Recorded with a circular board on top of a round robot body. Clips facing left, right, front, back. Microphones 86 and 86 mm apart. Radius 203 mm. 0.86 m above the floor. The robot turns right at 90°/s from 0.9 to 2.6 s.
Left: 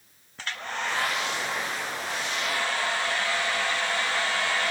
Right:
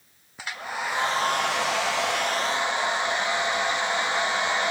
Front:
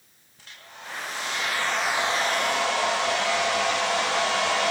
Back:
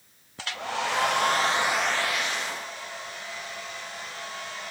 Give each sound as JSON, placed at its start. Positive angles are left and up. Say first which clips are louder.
{"t": 0.4, "sound": "a hair dryer", "louder": "right 1 dB, back 15 dB", "azimuth_deg": -170, "distance_m": 0.5}